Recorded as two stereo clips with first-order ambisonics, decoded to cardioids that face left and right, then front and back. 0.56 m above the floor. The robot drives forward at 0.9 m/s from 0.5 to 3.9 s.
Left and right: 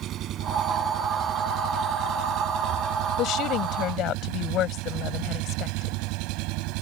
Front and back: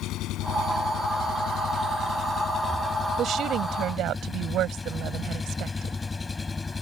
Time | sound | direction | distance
0.0 | an engine running | 45° right | ?
3.2 | a woman speaking | 130° left | ?